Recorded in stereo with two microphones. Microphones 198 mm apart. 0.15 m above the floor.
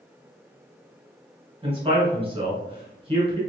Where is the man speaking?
30° right (ahead or behind), 1.4 m.